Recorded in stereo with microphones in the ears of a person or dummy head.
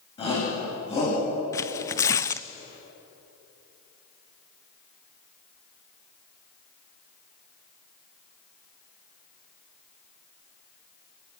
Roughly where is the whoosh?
I don't hear a whoosh.